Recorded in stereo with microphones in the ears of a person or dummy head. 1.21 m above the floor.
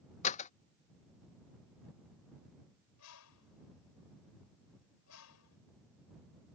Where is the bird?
80° left.